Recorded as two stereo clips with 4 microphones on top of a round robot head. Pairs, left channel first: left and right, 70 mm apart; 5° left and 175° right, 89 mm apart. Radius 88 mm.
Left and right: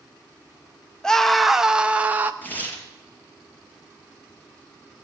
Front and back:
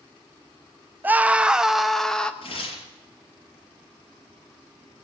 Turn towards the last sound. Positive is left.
turn(degrees=25)